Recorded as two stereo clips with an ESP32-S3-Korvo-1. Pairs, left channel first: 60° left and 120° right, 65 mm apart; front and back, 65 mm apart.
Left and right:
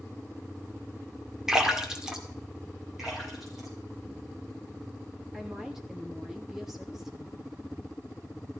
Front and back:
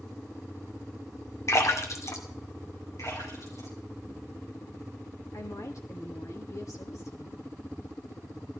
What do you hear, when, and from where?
1.5 s a splash: 40° right, 2 m
3.0 s a splash: 35° right, 5.5 m
5.3 s a woman speaking: 35° right, 3 m